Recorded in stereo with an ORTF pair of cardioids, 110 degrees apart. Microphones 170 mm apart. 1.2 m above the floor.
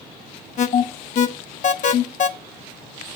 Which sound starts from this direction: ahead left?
An alarm, at 0.6 s.